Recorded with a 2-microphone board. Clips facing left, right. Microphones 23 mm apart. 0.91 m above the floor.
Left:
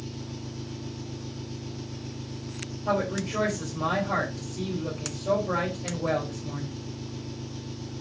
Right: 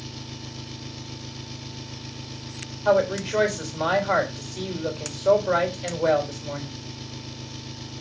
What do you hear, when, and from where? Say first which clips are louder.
0.0 s an engine running: right 1 dB; 55° right (ahead or behind), 1.1 m
2.9 s a woman speaking: right 7 dB; 80° right, 3.5 m